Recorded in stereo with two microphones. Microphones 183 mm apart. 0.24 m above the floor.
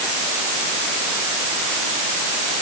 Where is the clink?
I don't hear a clink.